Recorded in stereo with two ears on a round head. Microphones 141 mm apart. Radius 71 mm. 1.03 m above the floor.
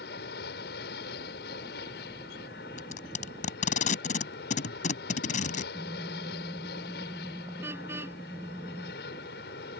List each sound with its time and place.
0.0 s an aircraft: 70° left (ahead or behind)
2.8 s tape being pulled: 55° left (ahead or behind)
5.7 s a car horn: 15° right (ahead or behind)